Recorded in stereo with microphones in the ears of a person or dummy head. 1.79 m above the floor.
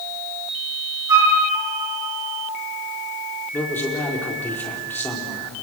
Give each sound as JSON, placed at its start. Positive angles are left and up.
{"t": 1.1, "sound": "a flute", "side_deg": -15, "distance_m": 5.0}
{"t": 3.5, "sound": "a man speaking", "side_deg": 10, "distance_m": 5.0}